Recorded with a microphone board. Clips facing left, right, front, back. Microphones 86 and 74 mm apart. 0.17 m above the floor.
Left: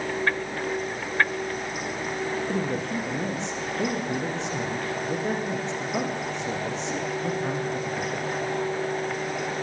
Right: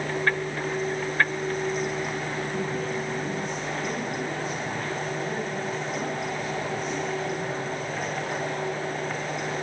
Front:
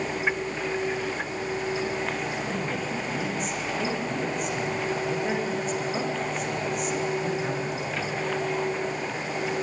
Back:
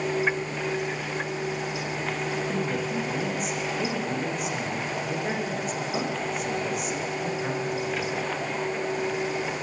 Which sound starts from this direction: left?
A man speaking, at 2.5 s.